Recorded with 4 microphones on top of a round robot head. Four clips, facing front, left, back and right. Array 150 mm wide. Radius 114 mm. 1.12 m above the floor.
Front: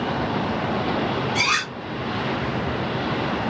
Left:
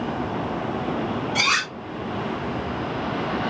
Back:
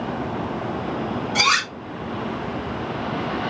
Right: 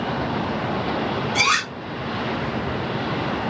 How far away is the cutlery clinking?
About 1.2 m.